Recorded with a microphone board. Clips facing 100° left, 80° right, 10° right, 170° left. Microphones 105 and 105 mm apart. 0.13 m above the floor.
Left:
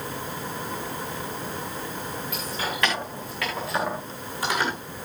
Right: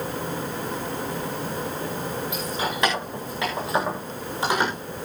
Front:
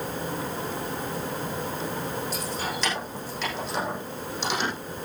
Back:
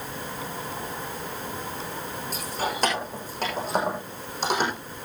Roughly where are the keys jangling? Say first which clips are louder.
Right 3 dB, back 1 dB; behind right.